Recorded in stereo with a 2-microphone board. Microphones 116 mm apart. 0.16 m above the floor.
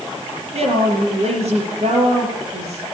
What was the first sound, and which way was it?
A woman speaking, 65° right (ahead or behind).